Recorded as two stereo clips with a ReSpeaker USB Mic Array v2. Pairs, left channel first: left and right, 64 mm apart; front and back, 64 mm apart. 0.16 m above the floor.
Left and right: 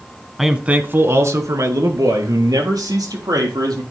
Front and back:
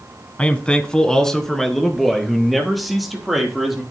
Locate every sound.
0.4 s a man speaking: 5° right, 1.1 m; by 3.8 s 90° right, 4.5 m